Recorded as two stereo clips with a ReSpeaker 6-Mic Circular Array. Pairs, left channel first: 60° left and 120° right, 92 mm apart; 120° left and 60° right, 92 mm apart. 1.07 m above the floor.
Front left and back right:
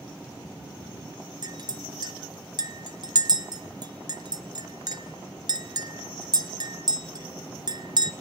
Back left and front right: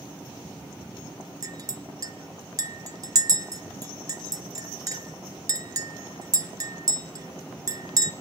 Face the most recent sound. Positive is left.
turn(degrees=-100)